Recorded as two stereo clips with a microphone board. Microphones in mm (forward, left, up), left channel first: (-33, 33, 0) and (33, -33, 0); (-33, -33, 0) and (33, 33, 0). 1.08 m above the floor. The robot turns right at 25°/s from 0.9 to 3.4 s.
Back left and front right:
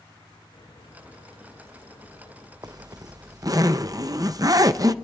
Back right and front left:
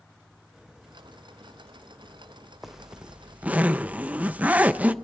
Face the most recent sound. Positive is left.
turn(degrees=-20)